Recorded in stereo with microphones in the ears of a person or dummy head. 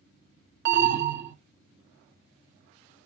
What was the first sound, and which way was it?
An alarm, 65° right (ahead or behind).